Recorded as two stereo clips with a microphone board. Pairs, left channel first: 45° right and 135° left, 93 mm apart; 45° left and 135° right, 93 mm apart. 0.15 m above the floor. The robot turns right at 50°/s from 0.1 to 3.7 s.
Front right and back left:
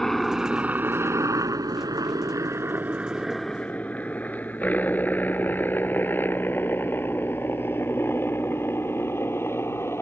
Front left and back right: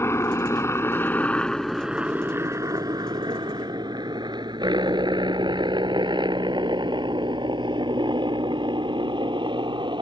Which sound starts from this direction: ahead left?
A helicopter, at 0.0 s.